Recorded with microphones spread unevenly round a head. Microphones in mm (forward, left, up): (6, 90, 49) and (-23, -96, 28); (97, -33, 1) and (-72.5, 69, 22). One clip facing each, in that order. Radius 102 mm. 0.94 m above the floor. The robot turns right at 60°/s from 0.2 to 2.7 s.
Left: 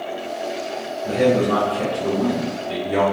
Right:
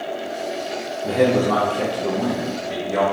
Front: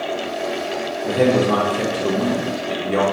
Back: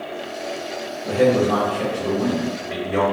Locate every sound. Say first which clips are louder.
1.0 s a man speaking: even, even; 90° right, 0.7 m; by 3.0 s 10° left, 0.7 m